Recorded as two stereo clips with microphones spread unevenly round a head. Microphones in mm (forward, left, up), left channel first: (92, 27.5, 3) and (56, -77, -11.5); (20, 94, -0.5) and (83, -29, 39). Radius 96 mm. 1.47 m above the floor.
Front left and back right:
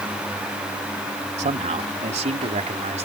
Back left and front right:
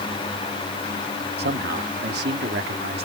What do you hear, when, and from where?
1.4 s a man speaking: 95° right; by 3.0 s 90° right